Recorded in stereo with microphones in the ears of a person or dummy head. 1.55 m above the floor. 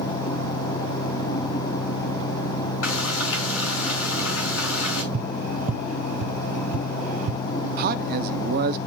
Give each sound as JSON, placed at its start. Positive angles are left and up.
{"t": 2.8, "sound": "frying", "side_deg": 75, "distance_m": 4.5}
{"t": 5.1, "sound": "tapping", "side_deg": -40, "distance_m": 0.5}
{"t": 7.8, "sound": "a man speaking", "side_deg": -50, "distance_m": 0.5}